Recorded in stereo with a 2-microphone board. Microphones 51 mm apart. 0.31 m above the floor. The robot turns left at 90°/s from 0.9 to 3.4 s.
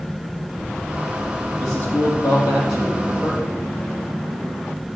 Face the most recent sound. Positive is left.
turn(degrees=10)  # may be behind; listen again after turning